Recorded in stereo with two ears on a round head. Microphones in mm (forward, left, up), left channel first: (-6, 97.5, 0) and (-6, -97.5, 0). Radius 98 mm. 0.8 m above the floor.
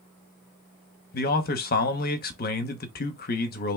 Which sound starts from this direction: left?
A man speaking, at 1.1 s.